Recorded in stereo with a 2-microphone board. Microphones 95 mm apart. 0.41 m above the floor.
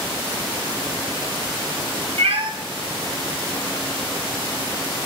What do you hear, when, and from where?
2.2 s a cat meowing: 70° right (ahead or behind), 0.7 m